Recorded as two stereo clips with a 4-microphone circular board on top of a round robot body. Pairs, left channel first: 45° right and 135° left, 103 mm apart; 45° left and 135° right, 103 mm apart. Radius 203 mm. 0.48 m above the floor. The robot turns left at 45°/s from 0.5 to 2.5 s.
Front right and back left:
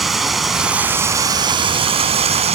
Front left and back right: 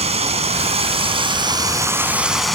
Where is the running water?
135° right; by 2.5 s 135° left.